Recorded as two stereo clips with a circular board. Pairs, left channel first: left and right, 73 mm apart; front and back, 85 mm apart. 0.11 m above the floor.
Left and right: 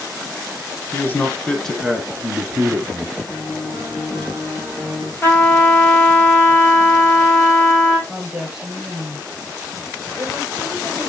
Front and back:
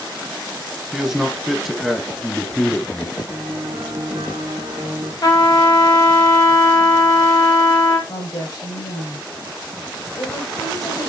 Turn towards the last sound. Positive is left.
turn(degrees=-15)